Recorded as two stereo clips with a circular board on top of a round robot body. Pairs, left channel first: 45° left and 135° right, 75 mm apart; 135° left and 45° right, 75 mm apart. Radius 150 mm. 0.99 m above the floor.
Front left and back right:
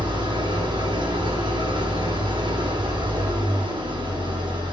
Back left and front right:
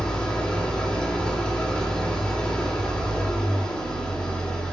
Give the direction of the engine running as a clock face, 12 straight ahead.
5 o'clock.